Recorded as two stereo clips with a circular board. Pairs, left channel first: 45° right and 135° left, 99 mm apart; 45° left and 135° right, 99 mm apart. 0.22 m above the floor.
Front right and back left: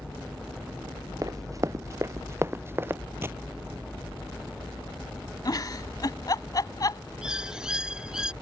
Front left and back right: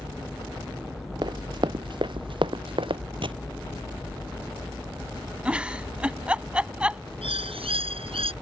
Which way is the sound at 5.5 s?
60° right.